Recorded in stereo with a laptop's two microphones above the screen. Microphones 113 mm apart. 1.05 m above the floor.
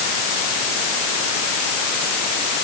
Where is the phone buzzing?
No phone buzzing in this recording.